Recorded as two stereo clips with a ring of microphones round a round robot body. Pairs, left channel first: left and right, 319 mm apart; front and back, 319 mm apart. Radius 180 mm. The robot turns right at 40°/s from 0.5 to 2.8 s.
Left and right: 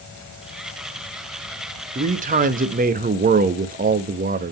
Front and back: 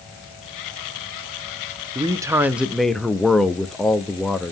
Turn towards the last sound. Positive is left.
turn(degrees=-90)